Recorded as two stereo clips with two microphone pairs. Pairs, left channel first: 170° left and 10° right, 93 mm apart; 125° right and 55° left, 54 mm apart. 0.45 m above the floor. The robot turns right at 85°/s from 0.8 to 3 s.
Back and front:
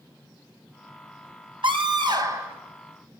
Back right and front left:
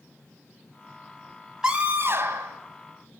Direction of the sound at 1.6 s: 25° right.